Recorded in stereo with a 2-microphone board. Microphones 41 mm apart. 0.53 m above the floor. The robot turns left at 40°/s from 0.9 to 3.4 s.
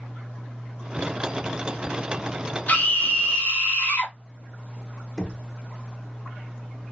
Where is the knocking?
10° left (ahead or behind), 0.9 m.